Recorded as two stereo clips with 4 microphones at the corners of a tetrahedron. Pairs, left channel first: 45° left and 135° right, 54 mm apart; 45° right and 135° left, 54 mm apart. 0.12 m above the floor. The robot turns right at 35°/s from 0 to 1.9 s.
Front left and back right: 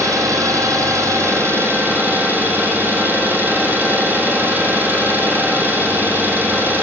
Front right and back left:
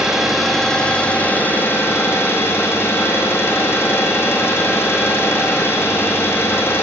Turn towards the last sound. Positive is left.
turn(degrees=-85)